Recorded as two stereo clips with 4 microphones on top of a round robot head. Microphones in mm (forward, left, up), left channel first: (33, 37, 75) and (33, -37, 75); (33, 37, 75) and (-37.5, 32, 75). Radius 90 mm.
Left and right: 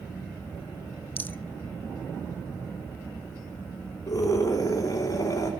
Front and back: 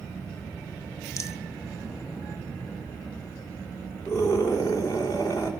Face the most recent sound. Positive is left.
turn(degrees=50)